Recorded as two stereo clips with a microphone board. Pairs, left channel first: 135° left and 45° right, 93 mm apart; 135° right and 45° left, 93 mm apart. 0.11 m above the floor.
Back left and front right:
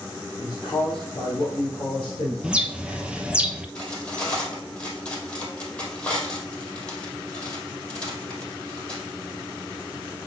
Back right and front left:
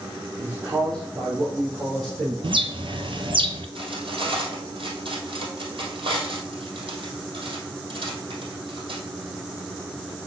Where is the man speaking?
85° left, 2.5 m; by 2.3 s 100° left, 4.5 m.